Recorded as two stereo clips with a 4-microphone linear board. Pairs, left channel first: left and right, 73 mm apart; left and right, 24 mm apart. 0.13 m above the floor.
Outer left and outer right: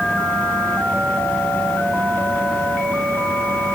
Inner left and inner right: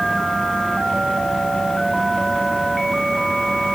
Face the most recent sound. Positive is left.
No sound to turn to.